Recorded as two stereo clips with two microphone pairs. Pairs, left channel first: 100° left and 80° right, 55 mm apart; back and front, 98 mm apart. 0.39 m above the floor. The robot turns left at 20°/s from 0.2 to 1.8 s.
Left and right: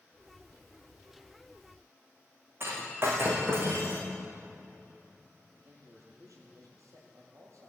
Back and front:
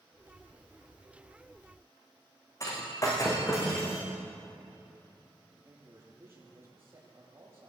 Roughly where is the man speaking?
Right.